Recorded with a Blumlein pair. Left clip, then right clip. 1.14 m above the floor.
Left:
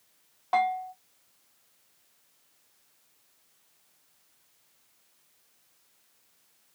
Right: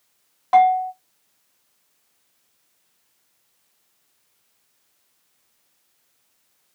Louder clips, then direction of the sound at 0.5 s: Right 11 dB; 20° right.